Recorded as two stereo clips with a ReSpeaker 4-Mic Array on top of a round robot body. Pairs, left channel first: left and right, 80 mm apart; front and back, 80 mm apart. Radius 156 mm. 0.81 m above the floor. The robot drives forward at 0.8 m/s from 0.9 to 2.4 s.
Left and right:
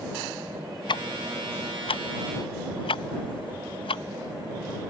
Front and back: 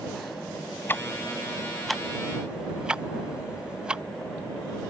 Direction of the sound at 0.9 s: 65° left.